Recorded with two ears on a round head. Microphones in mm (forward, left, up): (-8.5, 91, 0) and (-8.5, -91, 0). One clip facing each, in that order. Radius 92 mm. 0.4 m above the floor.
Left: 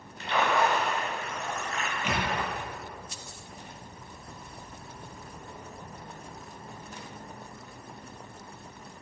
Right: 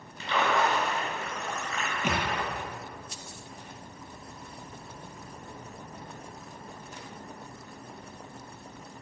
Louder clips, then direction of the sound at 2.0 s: Right 1 dB; 40° right (ahead or behind).